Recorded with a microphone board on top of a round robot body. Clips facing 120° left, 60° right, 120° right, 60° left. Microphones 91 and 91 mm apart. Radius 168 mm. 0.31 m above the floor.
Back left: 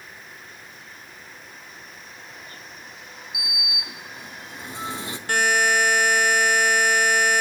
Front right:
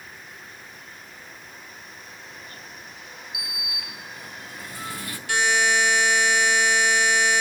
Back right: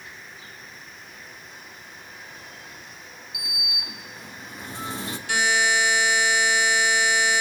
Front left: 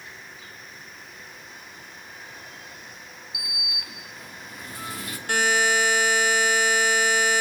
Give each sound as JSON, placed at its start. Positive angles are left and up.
{"t": 3.3, "sound": "a sliding door", "azimuth_deg": -175, "distance_m": 0.8}
{"t": 5.3, "sound": "a buzzer", "azimuth_deg": 90, "distance_m": 1.5}